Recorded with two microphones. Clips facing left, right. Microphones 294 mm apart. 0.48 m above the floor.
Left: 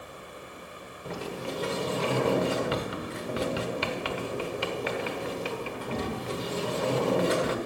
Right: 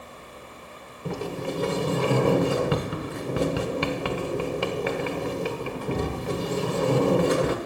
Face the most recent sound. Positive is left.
turn(degrees=-55)  # may be behind; listen again after turning